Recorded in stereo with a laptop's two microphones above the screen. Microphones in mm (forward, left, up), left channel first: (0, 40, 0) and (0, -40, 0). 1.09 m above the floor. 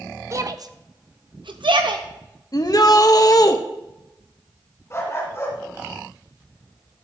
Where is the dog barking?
35° left (ahead or behind), 2.5 m.